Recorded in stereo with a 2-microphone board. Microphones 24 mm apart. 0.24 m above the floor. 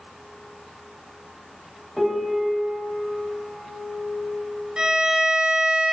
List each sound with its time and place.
2.0 s a piano: centre (ahead or behind), 0.6 m
4.8 s a violin: 30° right (ahead or behind), 0.7 m